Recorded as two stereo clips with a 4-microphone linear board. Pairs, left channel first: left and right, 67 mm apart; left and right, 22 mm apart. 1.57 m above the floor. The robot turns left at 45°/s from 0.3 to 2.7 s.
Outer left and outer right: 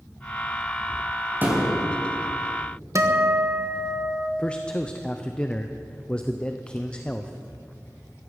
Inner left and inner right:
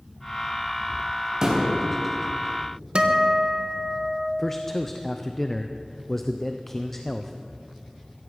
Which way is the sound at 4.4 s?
15° left (ahead or behind).